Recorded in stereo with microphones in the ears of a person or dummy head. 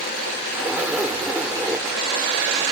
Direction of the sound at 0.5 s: 10° right (ahead or behind).